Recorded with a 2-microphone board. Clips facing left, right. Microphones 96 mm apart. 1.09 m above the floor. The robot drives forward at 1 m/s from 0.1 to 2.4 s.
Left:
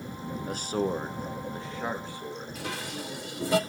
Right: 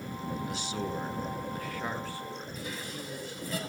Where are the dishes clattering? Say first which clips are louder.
Left 3 dB; 85° left, 1.5 m.